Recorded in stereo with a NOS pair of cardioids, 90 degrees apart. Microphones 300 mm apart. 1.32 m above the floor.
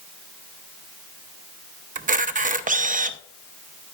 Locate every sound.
1.9 s a camera shutter: 25° right, 0.7 m